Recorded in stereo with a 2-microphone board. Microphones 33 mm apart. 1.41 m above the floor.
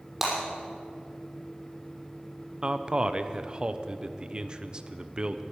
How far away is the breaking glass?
About 6 m.